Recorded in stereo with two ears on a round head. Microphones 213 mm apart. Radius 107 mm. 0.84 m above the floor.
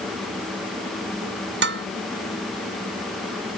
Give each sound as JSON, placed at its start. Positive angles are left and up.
{"t": 1.6, "sound": "dishes clattering", "side_deg": -50}